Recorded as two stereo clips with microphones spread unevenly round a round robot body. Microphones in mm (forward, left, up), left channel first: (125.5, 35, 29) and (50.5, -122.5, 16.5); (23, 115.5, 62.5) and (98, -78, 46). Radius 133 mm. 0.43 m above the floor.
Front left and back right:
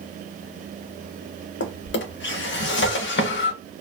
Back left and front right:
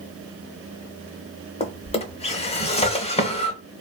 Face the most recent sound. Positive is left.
turn(degrees=50)